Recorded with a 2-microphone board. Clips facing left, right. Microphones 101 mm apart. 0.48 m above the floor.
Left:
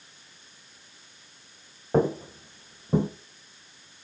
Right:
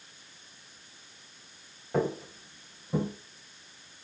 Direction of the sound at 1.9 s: 35° left (ahead or behind).